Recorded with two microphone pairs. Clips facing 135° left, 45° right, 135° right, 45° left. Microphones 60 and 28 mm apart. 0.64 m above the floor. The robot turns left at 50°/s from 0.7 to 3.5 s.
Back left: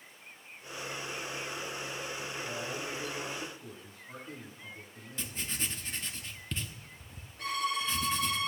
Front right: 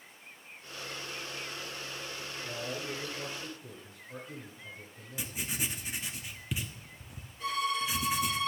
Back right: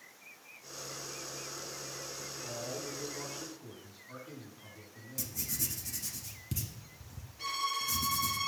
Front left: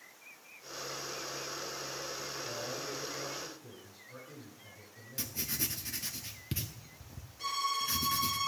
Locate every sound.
2.4 s a man speaking: 125° right, 7.5 m; by 5.4 s straight behind, 7.5 m
5.2 s writing: 25° left, 1.0 m
7.4 s a violin: 150° left, 7 m